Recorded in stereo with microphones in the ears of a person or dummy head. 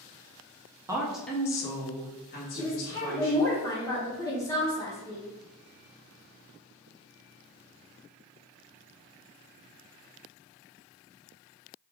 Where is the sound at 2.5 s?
20° left (ahead or behind), 0.7 m.